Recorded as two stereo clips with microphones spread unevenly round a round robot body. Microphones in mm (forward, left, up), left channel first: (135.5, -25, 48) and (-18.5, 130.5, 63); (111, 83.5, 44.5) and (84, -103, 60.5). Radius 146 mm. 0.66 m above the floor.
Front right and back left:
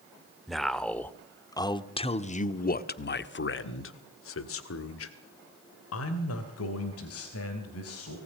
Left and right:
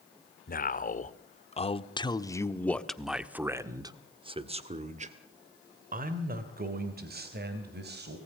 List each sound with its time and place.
0.5 s a man speaking: 45° left, 2.0 m; by 8.2 s 65° right, 3.5 m